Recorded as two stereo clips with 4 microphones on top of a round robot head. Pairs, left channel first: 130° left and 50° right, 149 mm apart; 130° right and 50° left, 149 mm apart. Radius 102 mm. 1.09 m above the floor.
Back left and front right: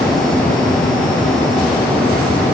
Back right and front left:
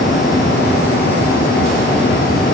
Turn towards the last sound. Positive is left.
No sound to turn to.